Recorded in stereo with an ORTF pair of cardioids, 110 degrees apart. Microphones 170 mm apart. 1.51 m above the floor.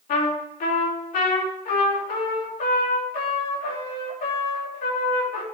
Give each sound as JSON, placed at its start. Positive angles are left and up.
{"t": 0.1, "sound": "a trumpet", "azimuth_deg": 60, "distance_m": 3.0}